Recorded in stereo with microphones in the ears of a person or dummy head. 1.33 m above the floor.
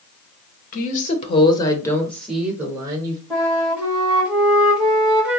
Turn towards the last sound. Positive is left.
turn(degrees=-5)  # may be behind; listen again after turning